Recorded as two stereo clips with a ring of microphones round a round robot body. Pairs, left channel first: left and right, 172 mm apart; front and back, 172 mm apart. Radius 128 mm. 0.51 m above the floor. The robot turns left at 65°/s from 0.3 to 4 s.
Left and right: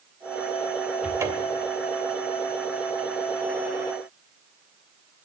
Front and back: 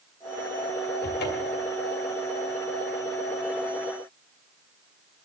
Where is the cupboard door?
5° right, 2.5 m; by 1.7 s 50° right, 2.5 m.